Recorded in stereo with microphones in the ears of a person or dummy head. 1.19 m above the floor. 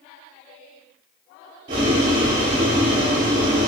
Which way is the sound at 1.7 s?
25° right (ahead or behind).